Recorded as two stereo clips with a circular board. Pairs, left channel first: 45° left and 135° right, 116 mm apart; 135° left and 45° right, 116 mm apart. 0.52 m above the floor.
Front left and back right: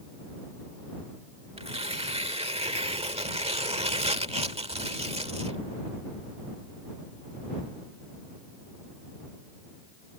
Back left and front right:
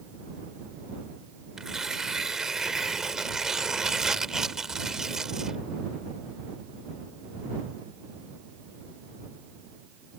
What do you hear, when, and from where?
1.6 s tearing paper: 130° right